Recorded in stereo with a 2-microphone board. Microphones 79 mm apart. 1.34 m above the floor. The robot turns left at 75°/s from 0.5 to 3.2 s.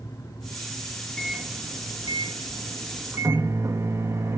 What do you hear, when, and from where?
1.2 s a microwave: 10° left, 1.3 m; by 4.4 s 145° right, 1.3 m